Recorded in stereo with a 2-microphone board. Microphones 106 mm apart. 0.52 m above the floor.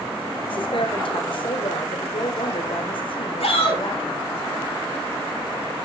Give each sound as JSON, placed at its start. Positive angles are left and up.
{"t": 0.5, "sound": "a woman speaking", "side_deg": 60, "distance_m": 1.9}
{"t": 3.4, "sound": "a shout", "side_deg": 70, "distance_m": 5.0}